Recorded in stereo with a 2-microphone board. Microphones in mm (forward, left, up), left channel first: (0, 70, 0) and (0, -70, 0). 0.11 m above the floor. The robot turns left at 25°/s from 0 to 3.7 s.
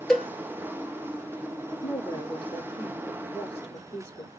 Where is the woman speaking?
145° left, 1.9 m; by 4.3 s 95° left, 1.9 m.